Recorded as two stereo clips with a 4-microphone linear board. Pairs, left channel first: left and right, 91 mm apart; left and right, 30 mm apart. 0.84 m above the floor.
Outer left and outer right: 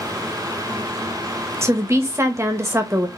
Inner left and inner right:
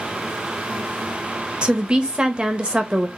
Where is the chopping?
No chopping in this recording.